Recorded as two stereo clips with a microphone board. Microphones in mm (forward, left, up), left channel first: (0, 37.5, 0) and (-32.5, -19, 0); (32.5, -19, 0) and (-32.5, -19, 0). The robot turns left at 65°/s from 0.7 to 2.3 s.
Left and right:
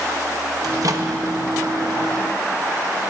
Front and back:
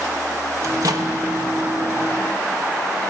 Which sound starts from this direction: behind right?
A microwave, at 0.6 s.